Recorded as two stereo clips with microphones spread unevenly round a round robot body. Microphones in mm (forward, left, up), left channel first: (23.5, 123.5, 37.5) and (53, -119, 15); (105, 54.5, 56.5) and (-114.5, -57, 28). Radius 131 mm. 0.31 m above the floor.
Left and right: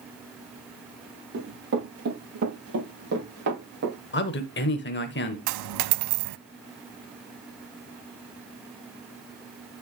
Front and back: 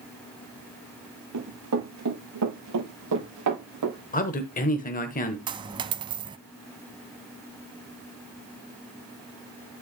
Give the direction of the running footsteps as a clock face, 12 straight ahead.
4 o'clock.